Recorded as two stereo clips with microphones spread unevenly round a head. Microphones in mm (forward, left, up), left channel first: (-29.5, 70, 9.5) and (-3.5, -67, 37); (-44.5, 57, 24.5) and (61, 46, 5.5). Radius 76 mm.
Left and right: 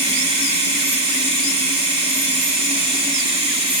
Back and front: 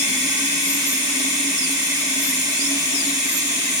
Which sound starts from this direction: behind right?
Running water, at 0.0 s.